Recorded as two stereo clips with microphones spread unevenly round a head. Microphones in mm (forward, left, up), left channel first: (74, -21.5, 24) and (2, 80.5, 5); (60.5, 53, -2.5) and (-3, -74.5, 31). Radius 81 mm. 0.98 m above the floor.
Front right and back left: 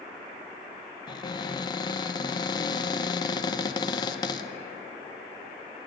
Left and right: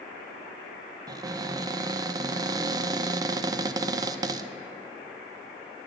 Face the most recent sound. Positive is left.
turn(degrees=-60)